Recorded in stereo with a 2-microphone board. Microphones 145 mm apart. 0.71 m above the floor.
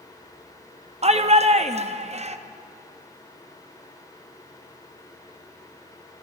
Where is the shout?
45° right (ahead or behind), 0.6 m.